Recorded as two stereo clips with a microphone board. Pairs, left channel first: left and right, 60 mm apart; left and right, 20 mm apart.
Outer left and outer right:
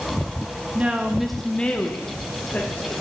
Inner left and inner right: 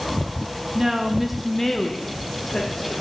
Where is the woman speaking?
25° right (ahead or behind), 0.5 m; by 3.0 s 30° left (ahead or behind), 1.7 m.